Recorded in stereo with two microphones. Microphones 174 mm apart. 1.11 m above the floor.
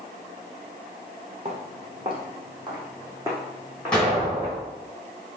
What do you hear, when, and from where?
1.4 s footsteps: 40° right (ahead or behind), 2 m; by 4.6 s 10° right (ahead or behind), 4 m
3.9 s an explosion: 5° left (ahead or behind), 3 m